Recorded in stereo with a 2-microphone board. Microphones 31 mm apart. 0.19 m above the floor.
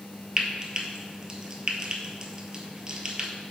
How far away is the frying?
About 0.6 m.